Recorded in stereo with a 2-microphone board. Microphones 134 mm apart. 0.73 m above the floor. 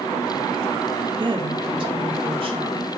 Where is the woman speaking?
35° right (ahead or behind), 1.8 m; by 3.0 s 45° right (ahead or behind), 3 m.